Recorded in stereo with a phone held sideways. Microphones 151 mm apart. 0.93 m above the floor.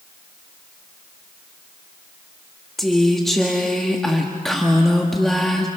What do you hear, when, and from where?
2.8 s a woman speaking: centre (ahead or behind), 1.3 m